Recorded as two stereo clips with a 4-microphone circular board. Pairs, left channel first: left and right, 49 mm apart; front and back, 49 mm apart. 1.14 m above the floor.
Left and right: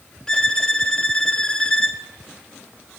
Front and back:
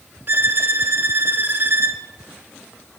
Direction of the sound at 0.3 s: 160° left.